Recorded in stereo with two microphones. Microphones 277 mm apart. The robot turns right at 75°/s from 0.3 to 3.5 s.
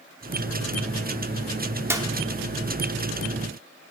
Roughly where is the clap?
Centre.